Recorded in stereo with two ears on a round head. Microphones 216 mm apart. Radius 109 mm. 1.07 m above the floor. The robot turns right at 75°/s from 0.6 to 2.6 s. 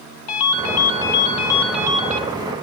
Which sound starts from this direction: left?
A ringtone, at 0.3 s.